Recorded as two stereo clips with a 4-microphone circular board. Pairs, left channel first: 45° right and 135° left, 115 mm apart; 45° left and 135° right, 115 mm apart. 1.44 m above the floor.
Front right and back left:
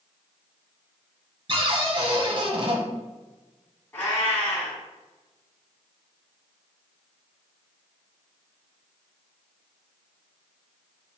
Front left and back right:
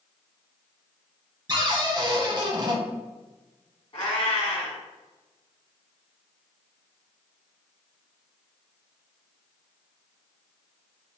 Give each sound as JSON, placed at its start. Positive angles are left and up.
{"t": 1.5, "sound": "a cupboard door", "azimuth_deg": 180, "distance_m": 0.8}
{"t": 3.9, "sound": "a cat meowing", "azimuth_deg": 20, "distance_m": 1.6}